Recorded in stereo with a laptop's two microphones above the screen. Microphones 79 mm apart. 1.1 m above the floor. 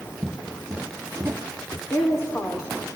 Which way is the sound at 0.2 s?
15° right (ahead or behind).